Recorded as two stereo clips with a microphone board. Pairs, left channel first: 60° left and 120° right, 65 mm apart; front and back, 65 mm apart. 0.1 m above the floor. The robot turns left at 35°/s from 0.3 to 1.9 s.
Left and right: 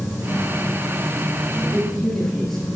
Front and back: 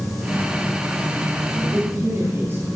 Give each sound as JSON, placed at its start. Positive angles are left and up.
{"t": 1.6, "sound": "a man speaking", "azimuth_deg": 155, "distance_m": 2.5}